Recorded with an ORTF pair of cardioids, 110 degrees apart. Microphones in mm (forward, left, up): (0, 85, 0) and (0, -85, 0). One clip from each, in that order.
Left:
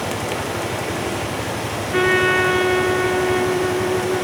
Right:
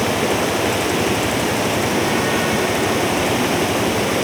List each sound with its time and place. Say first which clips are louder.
0.0 s running water: right 6 dB; 50° right, 5 m
1.9 s a trumpet: left 2 dB; 70° left, 2.5 m